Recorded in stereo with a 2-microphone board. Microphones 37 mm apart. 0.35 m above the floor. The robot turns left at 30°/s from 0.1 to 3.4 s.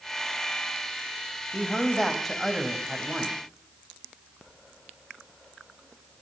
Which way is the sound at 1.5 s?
30° left.